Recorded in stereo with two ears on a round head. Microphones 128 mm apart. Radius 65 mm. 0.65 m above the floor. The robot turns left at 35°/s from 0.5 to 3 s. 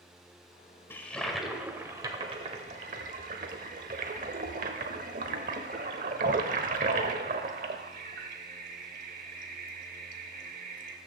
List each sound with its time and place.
0.9 s a toilet flushing: 15° left (ahead or behind), 1.0 m; by 11.0 s 60° right (ahead or behind), 1.0 m